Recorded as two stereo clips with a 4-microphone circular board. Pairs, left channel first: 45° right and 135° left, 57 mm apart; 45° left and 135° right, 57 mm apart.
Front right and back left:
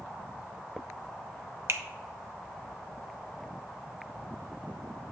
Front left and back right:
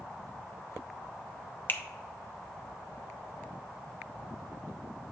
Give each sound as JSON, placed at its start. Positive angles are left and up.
{"t": 1.7, "sound": "a finger snap", "azimuth_deg": 100, "distance_m": 0.6}